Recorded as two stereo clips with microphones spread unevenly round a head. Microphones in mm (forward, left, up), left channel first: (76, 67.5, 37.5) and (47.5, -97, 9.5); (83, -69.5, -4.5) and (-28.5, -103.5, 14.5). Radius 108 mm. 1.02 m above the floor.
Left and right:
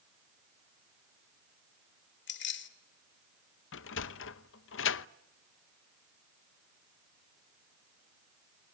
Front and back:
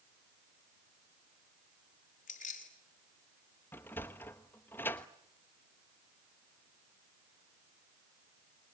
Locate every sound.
2.3 s keys jangling: 70° left, 3 m
3.7 s a sliding door: 95° left, 0.9 m